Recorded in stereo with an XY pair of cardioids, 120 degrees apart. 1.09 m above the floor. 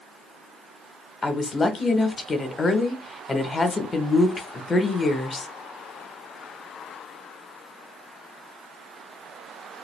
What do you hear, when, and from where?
1.2 s a woman speaking: 25° left, 0.9 m